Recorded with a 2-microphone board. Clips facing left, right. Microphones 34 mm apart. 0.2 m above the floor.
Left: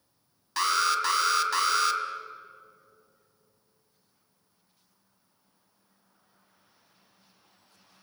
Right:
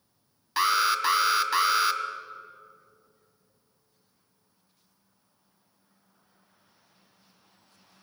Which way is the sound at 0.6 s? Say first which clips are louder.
Right 2 dB; 15° right (ahead or behind).